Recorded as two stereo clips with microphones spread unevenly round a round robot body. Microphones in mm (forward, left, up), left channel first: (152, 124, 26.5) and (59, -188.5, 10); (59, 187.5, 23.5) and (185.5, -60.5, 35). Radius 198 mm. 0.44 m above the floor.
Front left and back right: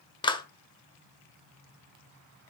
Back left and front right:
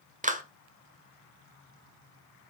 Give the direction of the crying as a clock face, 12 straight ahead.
No crying in this recording.